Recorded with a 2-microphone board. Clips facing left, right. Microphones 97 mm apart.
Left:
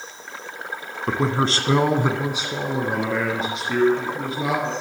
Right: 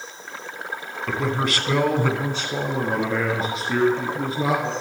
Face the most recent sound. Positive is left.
turn(degrees=-5)  # may be behind; listen again after turning